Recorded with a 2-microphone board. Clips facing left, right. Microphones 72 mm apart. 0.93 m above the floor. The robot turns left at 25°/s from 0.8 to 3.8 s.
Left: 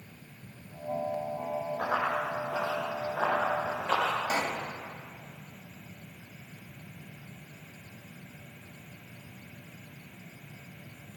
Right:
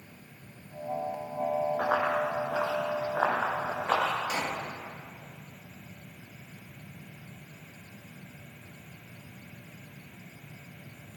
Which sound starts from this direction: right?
Running footsteps, at 1.8 s.